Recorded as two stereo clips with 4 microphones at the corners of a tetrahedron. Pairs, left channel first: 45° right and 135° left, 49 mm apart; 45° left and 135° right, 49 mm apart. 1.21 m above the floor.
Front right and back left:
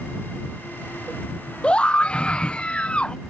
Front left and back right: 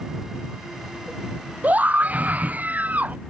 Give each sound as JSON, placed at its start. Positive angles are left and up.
{"t": 1.6, "sound": "a scream", "azimuth_deg": -100}